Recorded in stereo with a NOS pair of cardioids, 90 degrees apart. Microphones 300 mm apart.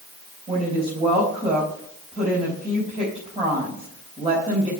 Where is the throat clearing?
I don't hear throat clearing.